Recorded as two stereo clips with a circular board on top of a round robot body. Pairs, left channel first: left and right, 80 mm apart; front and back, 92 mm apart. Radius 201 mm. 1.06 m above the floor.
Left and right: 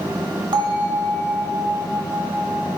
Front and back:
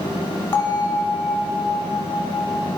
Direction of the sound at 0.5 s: 65° right.